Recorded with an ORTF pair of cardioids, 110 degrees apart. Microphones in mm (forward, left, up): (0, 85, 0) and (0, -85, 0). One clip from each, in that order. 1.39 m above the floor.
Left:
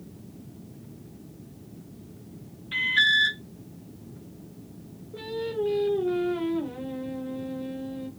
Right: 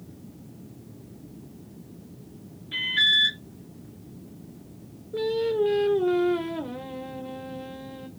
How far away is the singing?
About 0.9 m.